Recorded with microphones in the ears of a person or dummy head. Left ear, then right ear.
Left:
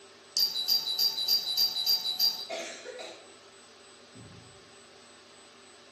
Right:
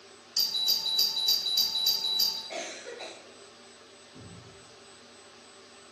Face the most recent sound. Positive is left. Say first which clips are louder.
# right 2 dB
turn(degrees=30)  # may be behind; listen again after turning